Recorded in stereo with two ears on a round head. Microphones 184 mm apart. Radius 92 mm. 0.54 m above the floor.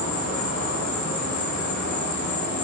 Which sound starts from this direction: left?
An insect, at 0.0 s.